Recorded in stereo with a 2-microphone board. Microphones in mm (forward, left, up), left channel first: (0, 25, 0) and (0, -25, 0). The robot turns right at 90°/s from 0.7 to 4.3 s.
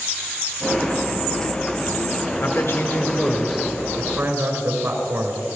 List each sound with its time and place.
2.4 s a man speaking: 70° left, 3 m; by 5.4 s 120° right, 3 m